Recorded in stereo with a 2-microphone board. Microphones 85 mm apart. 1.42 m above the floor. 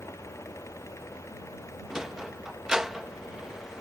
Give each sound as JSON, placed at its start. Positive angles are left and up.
{"t": 1.9, "sound": "a sliding door", "side_deg": -5}